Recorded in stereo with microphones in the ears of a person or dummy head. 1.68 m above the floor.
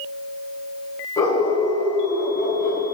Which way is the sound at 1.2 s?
15° left (ahead or behind).